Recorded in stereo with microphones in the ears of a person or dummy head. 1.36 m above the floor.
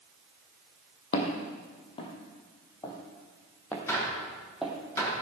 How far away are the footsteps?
About 2 m.